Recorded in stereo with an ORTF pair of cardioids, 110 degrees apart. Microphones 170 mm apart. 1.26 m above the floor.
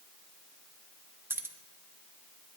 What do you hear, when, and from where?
1.3 s keys jangling: 15° right, 0.7 m